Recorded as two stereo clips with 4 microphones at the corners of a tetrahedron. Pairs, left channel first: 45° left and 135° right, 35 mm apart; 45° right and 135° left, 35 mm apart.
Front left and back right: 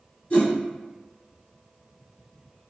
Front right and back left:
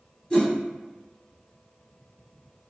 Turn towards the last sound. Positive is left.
turn(degrees=10)